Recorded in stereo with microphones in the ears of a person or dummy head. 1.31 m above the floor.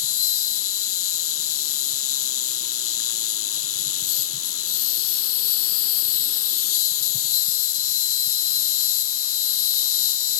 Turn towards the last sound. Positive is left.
turn(degrees=65)  # may be behind; listen again after turning